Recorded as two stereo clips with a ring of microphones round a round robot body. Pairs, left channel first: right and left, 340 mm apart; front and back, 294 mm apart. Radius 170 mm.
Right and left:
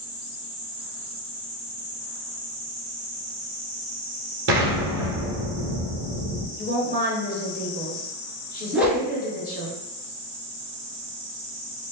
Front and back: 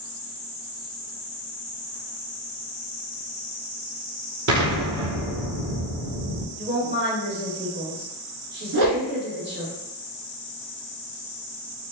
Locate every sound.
4.5 s an explosion: 145° left, 1.0 m
6.6 s a woman speaking: 140° right, 1.4 m
8.7 s a whoosh: 175° left, 1.0 m